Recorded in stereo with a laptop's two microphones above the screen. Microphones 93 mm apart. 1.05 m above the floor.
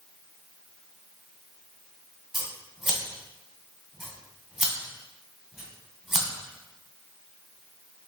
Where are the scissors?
5° right (ahead or behind), 1.8 m.